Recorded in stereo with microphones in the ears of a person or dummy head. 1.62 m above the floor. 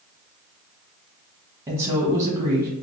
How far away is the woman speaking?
About 1.2 m.